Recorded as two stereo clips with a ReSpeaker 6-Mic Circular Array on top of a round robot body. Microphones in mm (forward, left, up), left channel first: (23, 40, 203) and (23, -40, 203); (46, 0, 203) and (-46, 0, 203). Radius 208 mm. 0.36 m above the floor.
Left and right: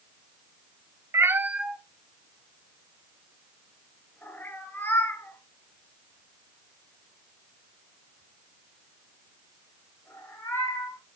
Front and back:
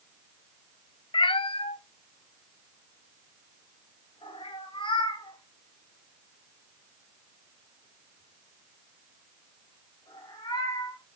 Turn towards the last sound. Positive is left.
turn(degrees=35)